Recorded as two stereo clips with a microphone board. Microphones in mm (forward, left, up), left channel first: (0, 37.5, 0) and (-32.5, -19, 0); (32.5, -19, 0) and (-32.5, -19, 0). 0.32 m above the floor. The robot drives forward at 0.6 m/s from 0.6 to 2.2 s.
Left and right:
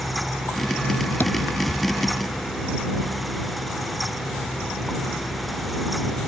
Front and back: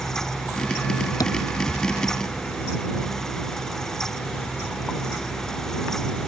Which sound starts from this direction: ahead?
Tapping, at 1.2 s.